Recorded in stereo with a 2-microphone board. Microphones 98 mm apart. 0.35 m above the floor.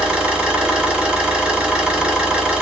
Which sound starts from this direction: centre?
An engine running, at 0.0 s.